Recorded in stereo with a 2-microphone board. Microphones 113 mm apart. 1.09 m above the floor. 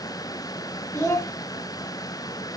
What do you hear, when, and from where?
0.9 s a child speaking: 25° left (ahead or behind), 1.3 m